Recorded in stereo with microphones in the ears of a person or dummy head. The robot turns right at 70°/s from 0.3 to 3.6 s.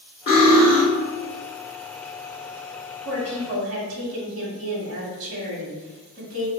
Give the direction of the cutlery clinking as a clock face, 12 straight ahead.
8 o'clock.